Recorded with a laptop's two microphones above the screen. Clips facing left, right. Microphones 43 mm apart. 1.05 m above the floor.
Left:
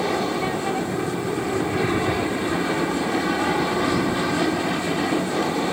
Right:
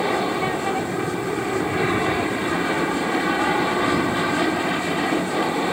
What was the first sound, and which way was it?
An aircraft, 15° right (ahead or behind).